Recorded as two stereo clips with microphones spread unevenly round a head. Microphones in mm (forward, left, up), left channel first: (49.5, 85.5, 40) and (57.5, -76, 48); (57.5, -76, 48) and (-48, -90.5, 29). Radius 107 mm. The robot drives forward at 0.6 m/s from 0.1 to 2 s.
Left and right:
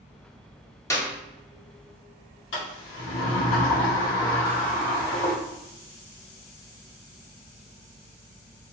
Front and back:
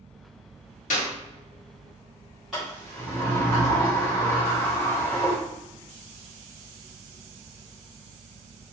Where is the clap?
20° left, 1.5 m.